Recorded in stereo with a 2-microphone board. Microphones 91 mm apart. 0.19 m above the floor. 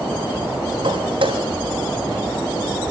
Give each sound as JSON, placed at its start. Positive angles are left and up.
{"t": 0.8, "sound": "footsteps", "side_deg": -80, "distance_m": 5.5}